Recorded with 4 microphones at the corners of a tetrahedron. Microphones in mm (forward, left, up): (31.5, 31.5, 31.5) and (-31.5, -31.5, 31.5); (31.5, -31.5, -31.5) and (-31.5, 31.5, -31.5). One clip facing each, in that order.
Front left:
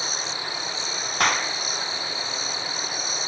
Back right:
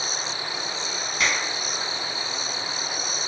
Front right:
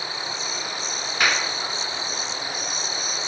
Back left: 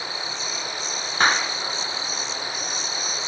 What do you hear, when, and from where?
1.2 s a clap: 80° left, 2.0 m